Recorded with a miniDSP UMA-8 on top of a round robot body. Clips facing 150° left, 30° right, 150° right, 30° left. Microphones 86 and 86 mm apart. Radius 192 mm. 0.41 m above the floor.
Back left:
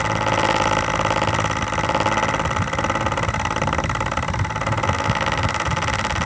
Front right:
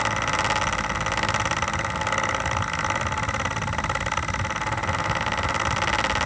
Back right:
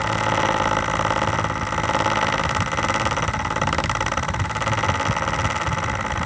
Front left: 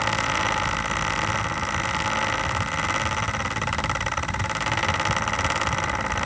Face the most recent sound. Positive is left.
No sound to turn to.